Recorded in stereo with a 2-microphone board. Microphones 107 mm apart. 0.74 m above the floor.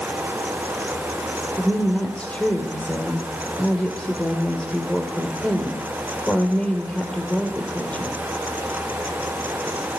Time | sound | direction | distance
1.6 | a woman speaking | 10° left (ahead or behind) | 2.5 m